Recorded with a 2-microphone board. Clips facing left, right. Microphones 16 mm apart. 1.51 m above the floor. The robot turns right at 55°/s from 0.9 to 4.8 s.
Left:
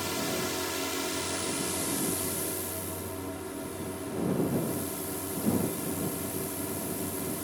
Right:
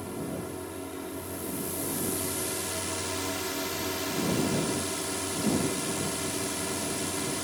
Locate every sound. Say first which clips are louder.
0.0 s a drone: left 4 dB; 115° left; by 7.5 s 35° right